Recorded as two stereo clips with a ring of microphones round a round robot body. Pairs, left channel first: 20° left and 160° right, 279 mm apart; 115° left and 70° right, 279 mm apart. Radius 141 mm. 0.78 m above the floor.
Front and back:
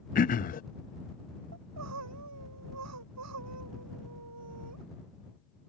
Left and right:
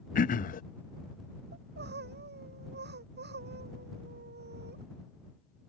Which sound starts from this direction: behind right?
Crying, at 1.5 s.